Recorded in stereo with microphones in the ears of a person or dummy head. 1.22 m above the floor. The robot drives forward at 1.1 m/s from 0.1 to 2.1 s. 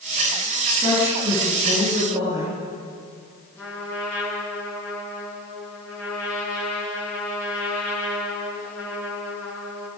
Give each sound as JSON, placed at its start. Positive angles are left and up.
{"t": 0.7, "sound": "a woman speaking", "side_deg": -20, "distance_m": 9.5}
{"t": 3.6, "sound": "a trumpet", "side_deg": 5, "distance_m": 9.0}